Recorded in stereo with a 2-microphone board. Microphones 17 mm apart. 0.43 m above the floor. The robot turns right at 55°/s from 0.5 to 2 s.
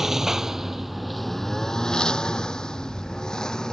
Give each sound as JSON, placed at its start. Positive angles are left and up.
{"t": 0.0, "sound": "a lawn mower", "side_deg": -25}